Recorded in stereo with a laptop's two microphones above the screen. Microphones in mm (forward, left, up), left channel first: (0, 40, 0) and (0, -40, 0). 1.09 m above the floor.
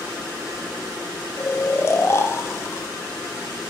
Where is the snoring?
35° left (ahead or behind), 0.6 m.